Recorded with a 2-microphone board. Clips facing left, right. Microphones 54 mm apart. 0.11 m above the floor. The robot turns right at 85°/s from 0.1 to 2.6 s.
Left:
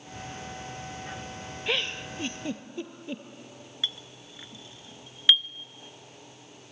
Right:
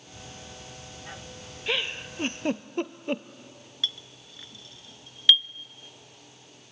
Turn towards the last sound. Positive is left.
turn(degrees=20)  # may be behind; listen again after turning